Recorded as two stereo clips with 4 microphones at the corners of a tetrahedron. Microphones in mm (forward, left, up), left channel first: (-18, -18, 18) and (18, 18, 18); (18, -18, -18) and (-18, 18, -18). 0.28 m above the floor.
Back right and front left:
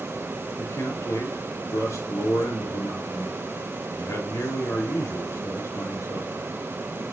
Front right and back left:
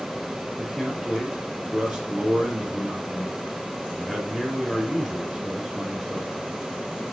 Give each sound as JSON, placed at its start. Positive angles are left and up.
{"t": 0.6, "sound": "a man speaking", "azimuth_deg": -135, "distance_m": 4.5}